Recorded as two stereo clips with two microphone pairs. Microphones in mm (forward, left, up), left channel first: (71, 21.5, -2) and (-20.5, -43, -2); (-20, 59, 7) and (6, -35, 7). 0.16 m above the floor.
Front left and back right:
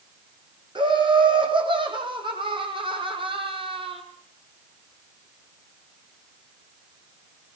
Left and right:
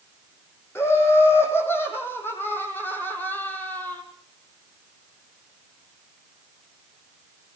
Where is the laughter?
170° left, 8 m; by 4.0 s straight behind, 5.5 m.